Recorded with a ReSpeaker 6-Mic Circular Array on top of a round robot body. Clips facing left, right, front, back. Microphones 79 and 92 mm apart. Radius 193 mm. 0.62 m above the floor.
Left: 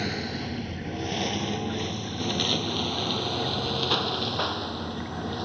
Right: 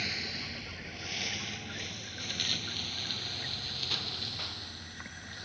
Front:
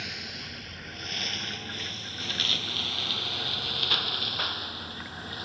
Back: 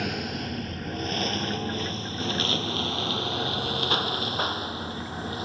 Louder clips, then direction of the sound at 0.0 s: Left 9 dB, back 11 dB; 140° left.